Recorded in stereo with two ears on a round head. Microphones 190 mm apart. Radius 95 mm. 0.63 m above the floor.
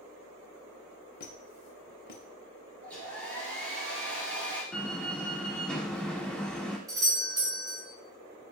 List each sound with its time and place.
1.2 s a squeak: 45° left (ahead or behind), 0.7 m
2.8 s a hair dryer: 5° left (ahead or behind), 1.9 m
4.7 s a door slam: 5° left (ahead or behind), 1.2 m
6.9 s a doorbell: 15° right (ahead or behind), 1.6 m